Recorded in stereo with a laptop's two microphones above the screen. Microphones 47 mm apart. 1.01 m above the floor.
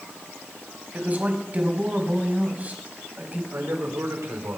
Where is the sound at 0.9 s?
35° right (ahead or behind), 5.5 m.